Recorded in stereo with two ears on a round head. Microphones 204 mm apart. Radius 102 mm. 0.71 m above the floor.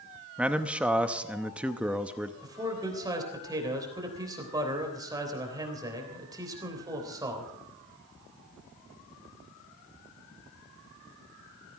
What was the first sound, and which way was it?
A man speaking, 5° right (ahead or behind).